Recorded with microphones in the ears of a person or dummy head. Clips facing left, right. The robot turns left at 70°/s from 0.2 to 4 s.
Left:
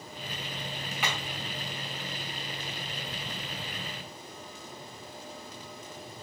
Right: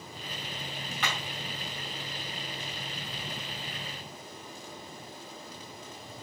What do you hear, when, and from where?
1.0 s hammering: 5° left (ahead or behind), 2.5 m; by 1.2 s 15° left (ahead or behind), 2.5 m